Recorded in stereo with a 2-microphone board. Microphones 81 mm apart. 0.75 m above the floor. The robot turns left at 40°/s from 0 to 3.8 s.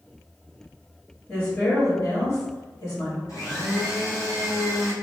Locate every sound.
1.3 s a woman speaking: 170° left, 1.2 m; by 3.2 s 95° left, 1.2 m
3.3 s a blender: 45° left (ahead or behind), 1.3 m